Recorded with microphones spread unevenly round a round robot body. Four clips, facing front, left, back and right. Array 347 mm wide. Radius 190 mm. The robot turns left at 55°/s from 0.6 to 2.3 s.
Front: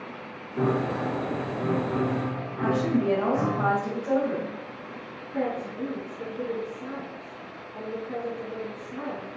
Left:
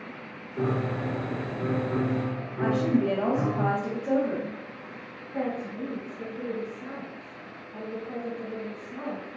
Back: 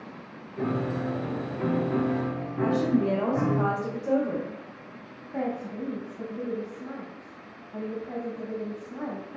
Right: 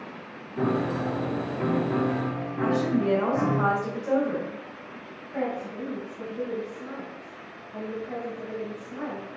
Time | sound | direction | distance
0.6 | a piano | 35° right | 4 m
2.6 | a woman speaking | 160° left | 1.9 m
5.3 | a woman speaking | 165° right | 2.5 m